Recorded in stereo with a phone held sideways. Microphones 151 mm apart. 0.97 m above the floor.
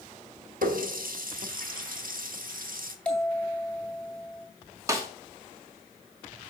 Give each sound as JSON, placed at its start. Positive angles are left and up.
{"t": 0.6, "sound": "a running tap", "side_deg": -70, "distance_m": 1.1}
{"t": 3.0, "sound": "a bell", "side_deg": 5, "distance_m": 2.5}
{"t": 4.9, "sound": "a snare drum", "side_deg": -20, "distance_m": 1.6}